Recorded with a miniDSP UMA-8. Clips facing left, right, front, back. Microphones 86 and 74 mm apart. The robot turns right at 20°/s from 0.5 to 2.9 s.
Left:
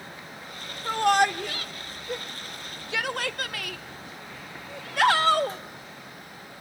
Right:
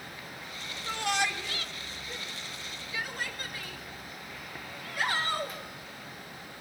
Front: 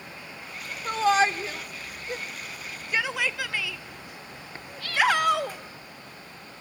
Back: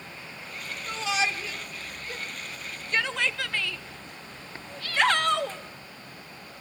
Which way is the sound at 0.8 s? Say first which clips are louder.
Left 9 dB, front 7 dB; 45° left.